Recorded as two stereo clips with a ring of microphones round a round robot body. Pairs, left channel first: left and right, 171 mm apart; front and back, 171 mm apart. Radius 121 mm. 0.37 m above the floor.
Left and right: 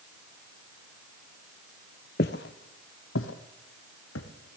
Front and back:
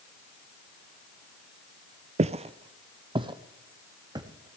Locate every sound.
2.2 s footsteps: 130° left, 0.6 m; by 4.6 s 110° left, 1.7 m